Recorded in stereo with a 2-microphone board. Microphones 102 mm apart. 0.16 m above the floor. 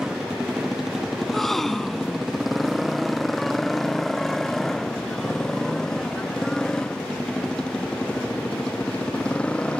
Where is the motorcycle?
5° right (ahead or behind); by 9.8 s 10° left (ahead or behind).